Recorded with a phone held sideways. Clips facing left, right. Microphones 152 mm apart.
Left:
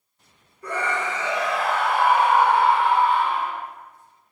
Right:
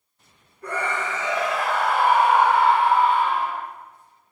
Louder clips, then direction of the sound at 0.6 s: Left 1 dB; 55° right (ahead or behind).